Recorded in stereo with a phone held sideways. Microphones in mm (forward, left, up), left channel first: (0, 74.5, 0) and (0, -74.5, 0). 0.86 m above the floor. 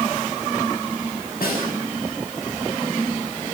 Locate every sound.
1.4 s a snare drum: 85° left, 7 m